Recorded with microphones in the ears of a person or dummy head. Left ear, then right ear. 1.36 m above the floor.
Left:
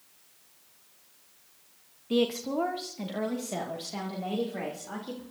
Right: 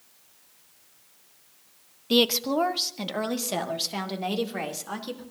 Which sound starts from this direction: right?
A woman speaking, at 2.1 s.